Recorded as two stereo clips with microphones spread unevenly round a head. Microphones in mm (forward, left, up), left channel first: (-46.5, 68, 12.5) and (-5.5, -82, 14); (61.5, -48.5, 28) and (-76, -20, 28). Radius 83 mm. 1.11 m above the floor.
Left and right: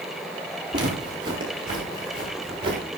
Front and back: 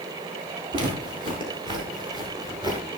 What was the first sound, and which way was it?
Footsteps, 140° right.